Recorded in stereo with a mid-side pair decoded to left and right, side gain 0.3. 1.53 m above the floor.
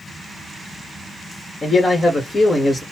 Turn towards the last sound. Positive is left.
turn(degrees=45)